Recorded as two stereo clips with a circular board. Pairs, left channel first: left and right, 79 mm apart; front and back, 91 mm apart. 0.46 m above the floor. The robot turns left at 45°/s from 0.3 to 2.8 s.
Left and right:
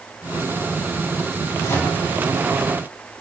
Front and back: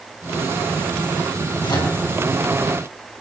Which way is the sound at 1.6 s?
40° left.